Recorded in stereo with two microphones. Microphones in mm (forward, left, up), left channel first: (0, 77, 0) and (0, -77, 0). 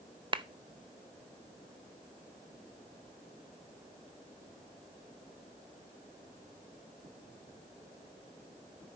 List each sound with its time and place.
0.3 s a clap: 30° right (ahead or behind), 0.6 m